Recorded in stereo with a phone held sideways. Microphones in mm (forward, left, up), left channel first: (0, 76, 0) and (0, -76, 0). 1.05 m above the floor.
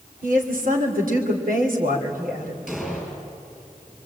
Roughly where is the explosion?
Centre.